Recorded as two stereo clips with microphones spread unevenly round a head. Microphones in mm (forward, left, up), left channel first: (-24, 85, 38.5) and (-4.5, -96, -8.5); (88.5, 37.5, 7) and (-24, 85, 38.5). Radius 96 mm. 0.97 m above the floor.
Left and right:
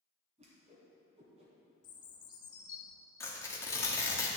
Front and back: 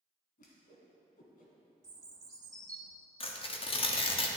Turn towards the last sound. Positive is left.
turn(degrees=15)